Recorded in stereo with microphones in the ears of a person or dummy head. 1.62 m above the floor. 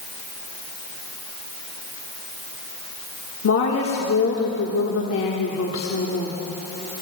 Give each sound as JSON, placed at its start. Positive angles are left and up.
{"t": 3.4, "sound": "a woman speaking", "side_deg": 70, "distance_m": 1.5}